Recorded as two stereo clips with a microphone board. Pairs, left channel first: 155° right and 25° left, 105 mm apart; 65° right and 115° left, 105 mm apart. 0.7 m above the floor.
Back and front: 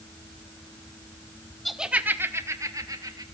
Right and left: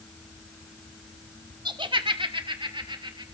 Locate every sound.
1.6 s laughter: 115° left, 1.2 m; by 3.2 s 70° left, 3 m